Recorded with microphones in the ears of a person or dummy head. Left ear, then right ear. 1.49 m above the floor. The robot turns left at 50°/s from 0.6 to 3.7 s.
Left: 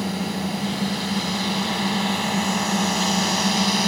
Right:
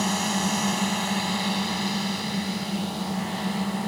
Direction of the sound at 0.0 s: 125° right.